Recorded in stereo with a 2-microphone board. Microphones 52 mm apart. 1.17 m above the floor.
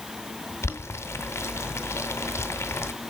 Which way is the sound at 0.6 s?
60° left (ahead or behind).